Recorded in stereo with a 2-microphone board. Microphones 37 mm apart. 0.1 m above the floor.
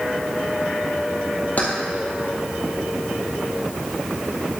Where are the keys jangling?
45° left (ahead or behind), 1.8 m.